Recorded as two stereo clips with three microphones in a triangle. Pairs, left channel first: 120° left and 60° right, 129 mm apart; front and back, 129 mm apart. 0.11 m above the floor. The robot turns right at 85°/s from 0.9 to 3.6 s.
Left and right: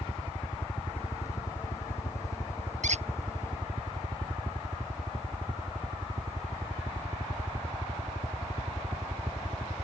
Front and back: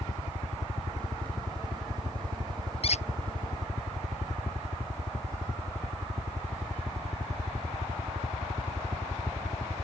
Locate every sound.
0.0 s a helicopter: 45° left; by 9.8 s 90° right
2.8 s a squeak: 40° right; by 3.0 s 25° right